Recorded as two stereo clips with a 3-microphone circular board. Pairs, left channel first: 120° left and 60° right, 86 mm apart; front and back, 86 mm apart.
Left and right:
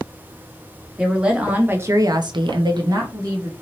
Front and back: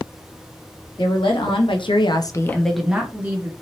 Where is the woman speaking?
25° left, 1.3 m; by 3.5 s 115° right, 1.2 m.